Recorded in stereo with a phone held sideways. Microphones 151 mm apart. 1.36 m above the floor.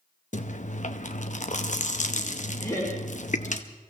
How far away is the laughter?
About 4 m.